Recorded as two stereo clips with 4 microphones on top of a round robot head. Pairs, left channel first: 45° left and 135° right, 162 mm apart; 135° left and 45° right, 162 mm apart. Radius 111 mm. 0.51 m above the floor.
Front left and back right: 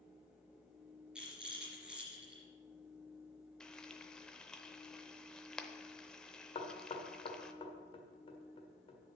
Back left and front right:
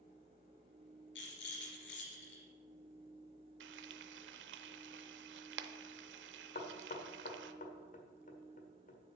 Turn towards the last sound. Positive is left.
turn(degrees=100)